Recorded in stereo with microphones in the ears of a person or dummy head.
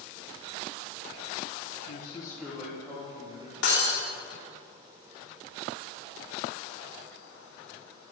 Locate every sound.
1.9 s a man speaking: 55° left (ahead or behind), 0.8 m; by 3.5 s 30° right (ahead or behind), 2.5 m
3.6 s breaking glass: 75° left (ahead or behind), 2.5 m